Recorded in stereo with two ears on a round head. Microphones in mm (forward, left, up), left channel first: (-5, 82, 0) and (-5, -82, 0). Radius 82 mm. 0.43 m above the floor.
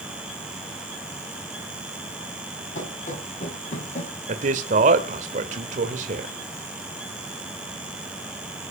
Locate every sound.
2.8 s running footsteps: 40° left (ahead or behind), 8.5 m
4.3 s a man speaking: 45° right (ahead or behind), 1.9 m